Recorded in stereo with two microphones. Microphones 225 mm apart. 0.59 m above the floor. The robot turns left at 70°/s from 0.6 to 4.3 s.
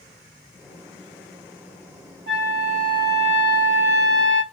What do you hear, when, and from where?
2.3 s a flute: 70° left, 3 m; by 4.4 s 70° right, 3 m